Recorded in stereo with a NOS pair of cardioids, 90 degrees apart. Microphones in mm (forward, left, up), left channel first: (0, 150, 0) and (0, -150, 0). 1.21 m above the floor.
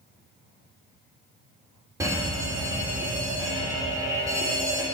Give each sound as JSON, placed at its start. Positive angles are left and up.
{"t": 2.0, "sound": "a fire alarm", "azimuth_deg": -10, "distance_m": 3.0}